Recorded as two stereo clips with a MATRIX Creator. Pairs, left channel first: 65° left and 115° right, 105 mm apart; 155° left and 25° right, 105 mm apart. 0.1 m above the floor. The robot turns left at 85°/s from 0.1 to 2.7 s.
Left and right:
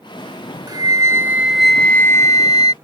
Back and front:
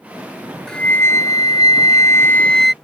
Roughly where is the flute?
Behind right.